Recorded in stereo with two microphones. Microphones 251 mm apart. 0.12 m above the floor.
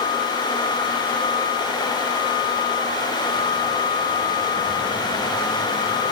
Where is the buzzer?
I don't hear a buzzer.